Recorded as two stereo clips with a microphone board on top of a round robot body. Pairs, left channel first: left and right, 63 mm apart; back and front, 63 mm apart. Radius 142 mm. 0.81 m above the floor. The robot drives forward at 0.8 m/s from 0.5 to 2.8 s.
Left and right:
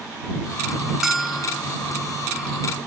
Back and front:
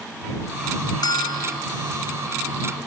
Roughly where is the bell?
Behind.